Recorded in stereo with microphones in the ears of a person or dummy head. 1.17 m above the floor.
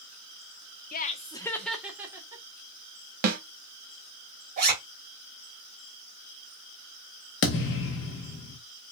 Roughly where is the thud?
Left.